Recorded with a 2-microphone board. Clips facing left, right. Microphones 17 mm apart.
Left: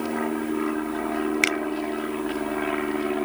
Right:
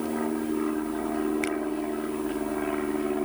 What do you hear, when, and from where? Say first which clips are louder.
0.0 s an aircraft: left 2 dB; 35° left (ahead or behind)
1.4 s a finger snap: left 6 dB; 90° left